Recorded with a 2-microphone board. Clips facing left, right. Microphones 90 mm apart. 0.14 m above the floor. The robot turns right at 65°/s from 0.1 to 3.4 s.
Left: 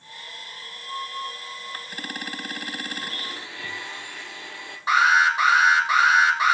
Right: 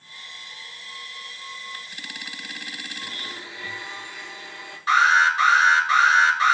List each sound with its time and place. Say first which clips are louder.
3.0 s a blender: left 2 dB; 65° left (ahead or behind), 2 m; by 4.8 s 70° left (ahead or behind), 2 m
4.9 s an alarm: right 1 dB; 20° left (ahead or behind), 4.5 m